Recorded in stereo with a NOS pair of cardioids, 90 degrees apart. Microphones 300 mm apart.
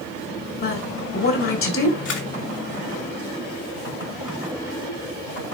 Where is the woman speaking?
45° left, 5 m.